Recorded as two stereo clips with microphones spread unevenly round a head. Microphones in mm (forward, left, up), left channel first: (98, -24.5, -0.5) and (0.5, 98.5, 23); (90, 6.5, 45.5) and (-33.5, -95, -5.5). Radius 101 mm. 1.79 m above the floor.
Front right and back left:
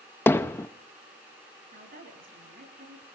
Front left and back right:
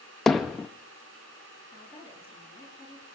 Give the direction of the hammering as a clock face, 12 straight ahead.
11 o'clock.